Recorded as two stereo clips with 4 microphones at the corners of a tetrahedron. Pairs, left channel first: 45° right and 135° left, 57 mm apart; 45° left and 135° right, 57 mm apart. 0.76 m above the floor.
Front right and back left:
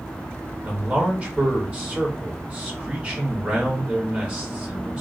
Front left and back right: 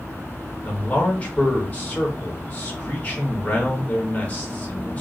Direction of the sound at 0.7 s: 85° left.